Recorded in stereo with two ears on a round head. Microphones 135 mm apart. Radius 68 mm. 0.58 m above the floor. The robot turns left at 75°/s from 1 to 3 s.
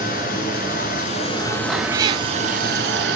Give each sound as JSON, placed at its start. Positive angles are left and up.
{"t": 0.0, "sound": "running water", "azimuth_deg": 60, "distance_m": 2.0}
{"t": 1.7, "sound": "a cat meowing", "azimuth_deg": -5, "distance_m": 0.5}